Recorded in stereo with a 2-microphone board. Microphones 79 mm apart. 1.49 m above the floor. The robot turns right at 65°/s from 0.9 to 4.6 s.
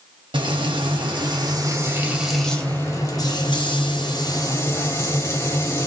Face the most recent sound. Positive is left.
turn(degrees=145)